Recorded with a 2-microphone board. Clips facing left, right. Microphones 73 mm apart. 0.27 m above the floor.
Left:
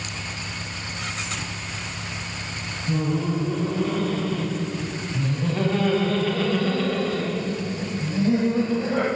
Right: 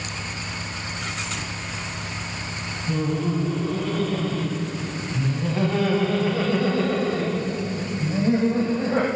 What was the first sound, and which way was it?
Laughter, 5° left (ahead or behind).